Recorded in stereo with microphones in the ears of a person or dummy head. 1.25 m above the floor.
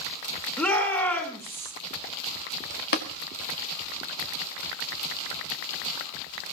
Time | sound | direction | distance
0.6 | a shout | 5° left (ahead or behind) | 4 m
2.9 | tapping | 60° left (ahead or behind) | 1.9 m